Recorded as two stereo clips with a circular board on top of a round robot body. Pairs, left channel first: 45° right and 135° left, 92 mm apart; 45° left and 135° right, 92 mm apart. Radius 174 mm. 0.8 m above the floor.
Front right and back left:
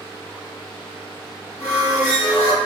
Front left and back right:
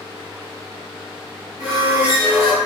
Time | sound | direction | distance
1.6 | a squeak | 145° left | 1.2 m